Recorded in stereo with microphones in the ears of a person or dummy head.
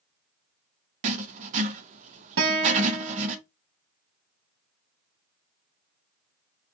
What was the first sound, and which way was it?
Writing, 35° right (ahead or behind).